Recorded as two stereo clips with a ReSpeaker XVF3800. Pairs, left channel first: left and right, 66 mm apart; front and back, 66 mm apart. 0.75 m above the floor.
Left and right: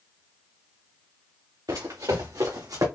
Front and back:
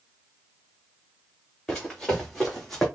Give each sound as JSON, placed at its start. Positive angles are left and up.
{"t": 1.7, "sound": "running footsteps", "azimuth_deg": -85, "distance_m": 3.0}